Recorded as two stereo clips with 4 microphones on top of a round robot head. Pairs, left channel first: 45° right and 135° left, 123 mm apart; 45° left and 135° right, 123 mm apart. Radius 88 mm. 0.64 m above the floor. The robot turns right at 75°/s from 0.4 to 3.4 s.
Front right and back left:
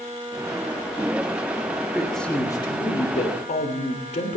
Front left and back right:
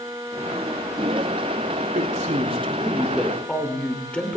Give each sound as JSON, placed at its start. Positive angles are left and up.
{"t": 1.9, "sound": "a man speaking", "azimuth_deg": -145, "distance_m": 2.5}